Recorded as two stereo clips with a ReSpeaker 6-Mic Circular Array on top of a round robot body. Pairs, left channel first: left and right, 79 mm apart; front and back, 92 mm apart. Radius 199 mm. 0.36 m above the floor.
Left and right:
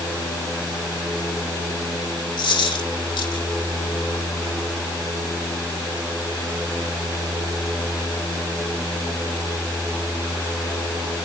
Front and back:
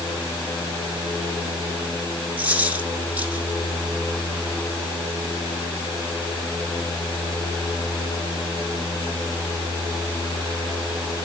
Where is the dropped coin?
105° left, 8 m.